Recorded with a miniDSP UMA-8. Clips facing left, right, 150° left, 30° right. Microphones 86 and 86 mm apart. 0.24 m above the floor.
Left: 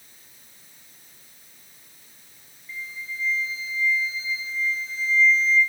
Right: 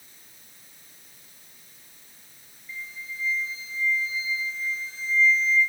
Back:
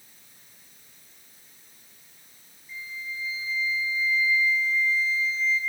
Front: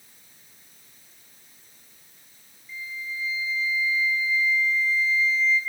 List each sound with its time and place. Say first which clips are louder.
2.7 s a flute: left 3 dB, front 2 dB; 170° right, 2 m